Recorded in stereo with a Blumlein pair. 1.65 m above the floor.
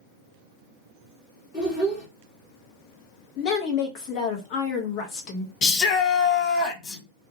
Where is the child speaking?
25° left, 1.3 m.